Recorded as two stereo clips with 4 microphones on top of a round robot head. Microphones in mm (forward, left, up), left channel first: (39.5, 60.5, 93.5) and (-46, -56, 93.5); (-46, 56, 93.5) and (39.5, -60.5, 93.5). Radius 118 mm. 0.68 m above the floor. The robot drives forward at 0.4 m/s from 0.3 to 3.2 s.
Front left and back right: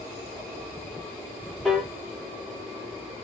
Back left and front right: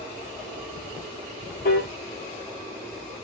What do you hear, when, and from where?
1.6 s a piano: 145° left, 1.6 m